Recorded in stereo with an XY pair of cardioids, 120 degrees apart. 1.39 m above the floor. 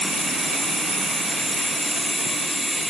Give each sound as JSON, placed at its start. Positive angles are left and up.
{"t": 0.0, "sound": "running water", "azimuth_deg": 0, "distance_m": 4.0}